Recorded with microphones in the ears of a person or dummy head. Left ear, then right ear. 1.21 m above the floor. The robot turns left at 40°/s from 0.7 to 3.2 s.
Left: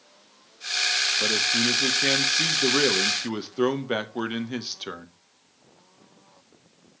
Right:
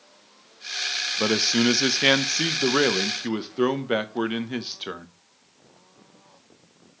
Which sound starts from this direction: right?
A man speaking, at 1.2 s.